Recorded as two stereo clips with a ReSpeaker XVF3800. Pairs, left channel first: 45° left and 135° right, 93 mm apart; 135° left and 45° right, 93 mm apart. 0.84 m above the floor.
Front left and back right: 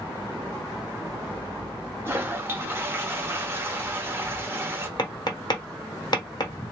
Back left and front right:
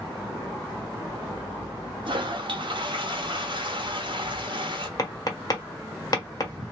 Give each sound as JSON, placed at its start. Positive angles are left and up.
{"t": 2.0, "sound": "a toilet flushing", "azimuth_deg": -70, "distance_m": 0.8}
{"t": 5.0, "sound": "tapping", "azimuth_deg": 85, "distance_m": 1.1}